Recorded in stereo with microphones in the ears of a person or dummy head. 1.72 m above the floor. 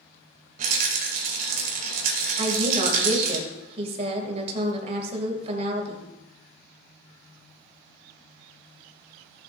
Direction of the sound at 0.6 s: 55° right (ahead or behind).